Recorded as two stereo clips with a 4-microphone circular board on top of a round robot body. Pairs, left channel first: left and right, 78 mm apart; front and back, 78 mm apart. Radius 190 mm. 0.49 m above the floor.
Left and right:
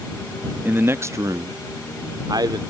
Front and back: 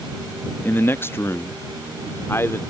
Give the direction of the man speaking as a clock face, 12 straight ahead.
1 o'clock.